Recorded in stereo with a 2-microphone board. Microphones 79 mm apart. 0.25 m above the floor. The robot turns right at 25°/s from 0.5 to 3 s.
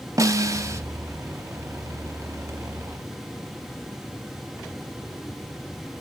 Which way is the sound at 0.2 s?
40° right (ahead or behind).